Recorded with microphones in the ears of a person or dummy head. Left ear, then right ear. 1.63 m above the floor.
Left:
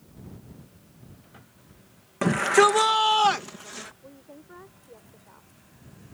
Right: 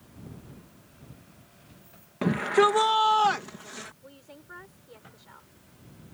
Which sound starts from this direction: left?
A shout, at 2.2 s.